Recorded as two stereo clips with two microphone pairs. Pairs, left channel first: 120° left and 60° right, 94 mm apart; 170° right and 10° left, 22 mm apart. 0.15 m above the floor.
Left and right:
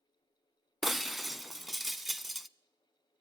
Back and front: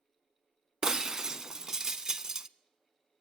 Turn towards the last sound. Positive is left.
turn(degrees=25)